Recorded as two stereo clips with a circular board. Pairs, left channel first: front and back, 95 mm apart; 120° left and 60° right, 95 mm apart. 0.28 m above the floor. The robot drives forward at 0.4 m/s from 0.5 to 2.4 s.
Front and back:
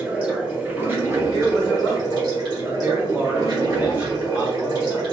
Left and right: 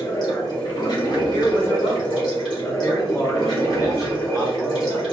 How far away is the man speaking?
About 1.1 m.